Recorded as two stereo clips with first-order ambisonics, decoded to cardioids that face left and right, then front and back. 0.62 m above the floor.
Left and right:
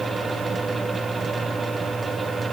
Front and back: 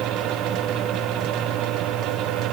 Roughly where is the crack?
No crack in this recording.